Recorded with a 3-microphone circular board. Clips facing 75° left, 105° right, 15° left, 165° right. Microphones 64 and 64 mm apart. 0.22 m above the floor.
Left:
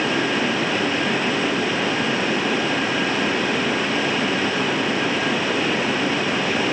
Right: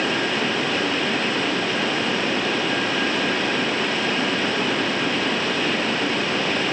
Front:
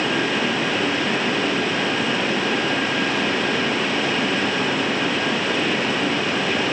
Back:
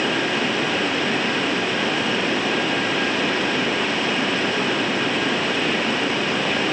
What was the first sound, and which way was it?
Only background noise.